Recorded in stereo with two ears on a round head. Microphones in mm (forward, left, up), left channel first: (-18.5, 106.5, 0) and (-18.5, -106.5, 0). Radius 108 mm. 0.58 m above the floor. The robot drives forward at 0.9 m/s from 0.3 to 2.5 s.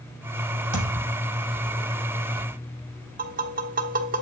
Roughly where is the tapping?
Right.